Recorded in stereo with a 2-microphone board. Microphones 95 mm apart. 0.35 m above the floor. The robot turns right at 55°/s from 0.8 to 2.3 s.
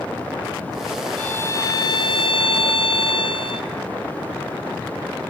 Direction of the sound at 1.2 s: 15° left.